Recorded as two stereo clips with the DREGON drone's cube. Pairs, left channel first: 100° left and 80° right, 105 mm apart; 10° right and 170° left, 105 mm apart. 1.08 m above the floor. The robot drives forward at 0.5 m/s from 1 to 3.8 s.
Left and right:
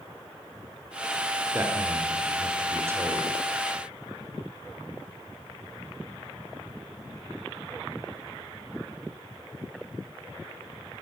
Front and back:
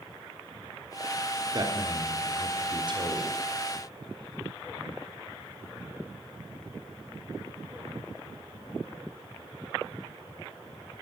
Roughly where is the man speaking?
Behind right.